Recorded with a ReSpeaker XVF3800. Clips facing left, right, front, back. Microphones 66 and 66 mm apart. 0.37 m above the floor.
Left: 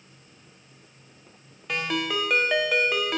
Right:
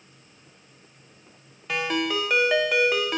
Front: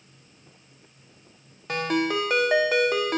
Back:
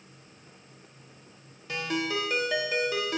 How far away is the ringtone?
About 0.5 m.